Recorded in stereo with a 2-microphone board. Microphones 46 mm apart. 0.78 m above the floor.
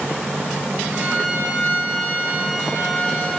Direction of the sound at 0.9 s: 40° right (ahead or behind).